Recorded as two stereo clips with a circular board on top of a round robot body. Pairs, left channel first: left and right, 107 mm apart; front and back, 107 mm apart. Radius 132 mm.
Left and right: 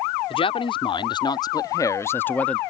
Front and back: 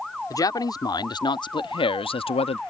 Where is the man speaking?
55° left; by 2.6 s 10° left.